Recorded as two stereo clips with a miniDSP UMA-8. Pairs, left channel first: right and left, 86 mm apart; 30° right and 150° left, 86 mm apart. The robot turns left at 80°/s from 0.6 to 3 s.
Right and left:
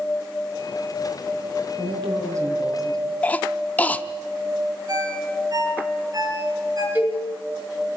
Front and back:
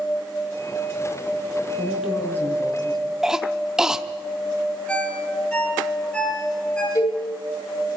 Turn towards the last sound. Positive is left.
turn(degrees=20)